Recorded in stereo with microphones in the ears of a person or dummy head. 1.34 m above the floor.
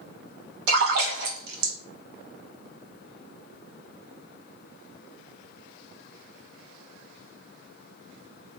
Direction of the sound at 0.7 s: 60° right (ahead or behind).